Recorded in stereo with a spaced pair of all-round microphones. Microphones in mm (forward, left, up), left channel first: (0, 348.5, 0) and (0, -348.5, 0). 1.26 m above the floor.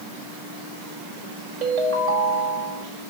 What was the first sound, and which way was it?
A ringtone, 55° right (ahead or behind).